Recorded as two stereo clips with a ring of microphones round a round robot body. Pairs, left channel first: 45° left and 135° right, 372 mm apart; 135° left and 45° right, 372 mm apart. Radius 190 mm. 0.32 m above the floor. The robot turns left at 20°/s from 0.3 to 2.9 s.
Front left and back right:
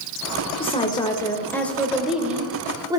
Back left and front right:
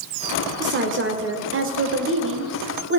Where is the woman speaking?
20° right, 1.0 m; by 3.0 s 65° right, 1.0 m.